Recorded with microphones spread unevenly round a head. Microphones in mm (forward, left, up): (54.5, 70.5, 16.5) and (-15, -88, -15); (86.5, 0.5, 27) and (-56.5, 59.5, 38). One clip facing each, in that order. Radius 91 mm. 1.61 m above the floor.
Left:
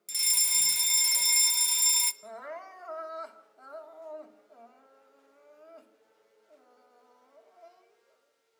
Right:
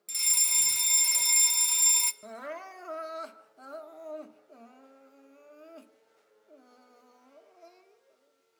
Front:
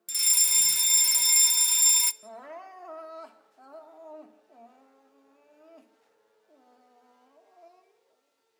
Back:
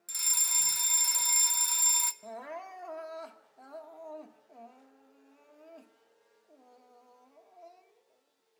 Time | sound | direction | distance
0.1 | a fire alarm | 30° right | 0.6 m
2.2 | crying | 125° right | 1.2 m